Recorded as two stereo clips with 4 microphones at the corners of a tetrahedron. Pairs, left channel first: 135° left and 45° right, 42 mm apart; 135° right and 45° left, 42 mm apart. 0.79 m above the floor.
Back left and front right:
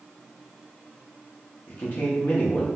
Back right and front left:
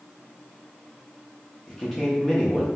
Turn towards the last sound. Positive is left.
turn(degrees=145)